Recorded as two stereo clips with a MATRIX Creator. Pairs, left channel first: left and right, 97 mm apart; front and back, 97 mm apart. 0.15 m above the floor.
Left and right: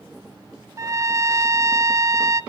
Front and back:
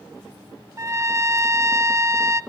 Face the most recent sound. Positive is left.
turn(degrees=-135)